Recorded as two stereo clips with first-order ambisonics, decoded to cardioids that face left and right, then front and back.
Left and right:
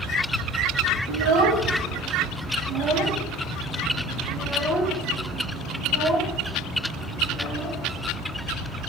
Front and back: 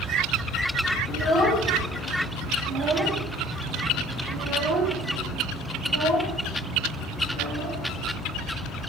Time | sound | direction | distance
1.1 | a child speaking | 80° right | 0.9 m